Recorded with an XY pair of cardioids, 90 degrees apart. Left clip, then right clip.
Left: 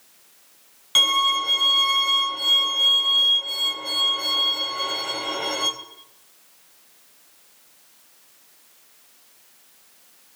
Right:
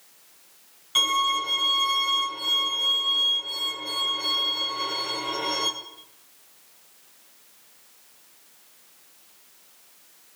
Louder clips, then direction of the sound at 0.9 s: Left 4 dB; 60° left.